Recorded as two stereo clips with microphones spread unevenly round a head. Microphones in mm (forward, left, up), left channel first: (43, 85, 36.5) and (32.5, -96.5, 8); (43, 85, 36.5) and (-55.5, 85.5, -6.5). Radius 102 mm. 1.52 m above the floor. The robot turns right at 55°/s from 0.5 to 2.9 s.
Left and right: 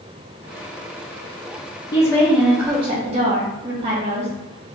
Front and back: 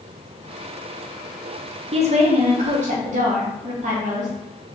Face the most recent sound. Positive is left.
turn(degrees=-160)